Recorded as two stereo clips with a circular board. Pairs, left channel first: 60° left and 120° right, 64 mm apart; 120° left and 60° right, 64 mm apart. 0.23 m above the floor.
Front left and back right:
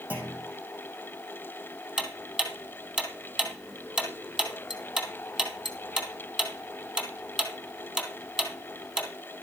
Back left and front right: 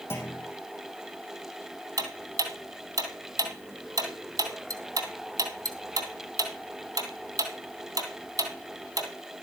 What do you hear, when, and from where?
0.1 s a clunk: 170° left, 3.5 m
2.0 s ticking: 45° right, 2.5 m